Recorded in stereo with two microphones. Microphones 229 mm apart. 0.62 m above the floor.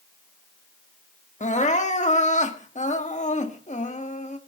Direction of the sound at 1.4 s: 30° left (ahead or behind).